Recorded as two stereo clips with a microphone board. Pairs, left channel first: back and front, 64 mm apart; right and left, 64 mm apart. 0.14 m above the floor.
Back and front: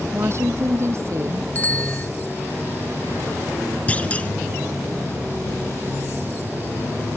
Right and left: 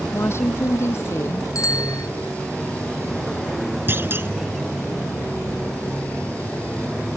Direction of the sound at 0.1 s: 45° right.